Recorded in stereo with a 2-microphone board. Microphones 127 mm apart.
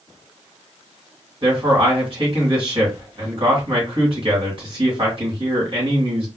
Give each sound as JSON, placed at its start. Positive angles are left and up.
{"t": 1.4, "sound": "a man speaking", "side_deg": -45, "distance_m": 2.0}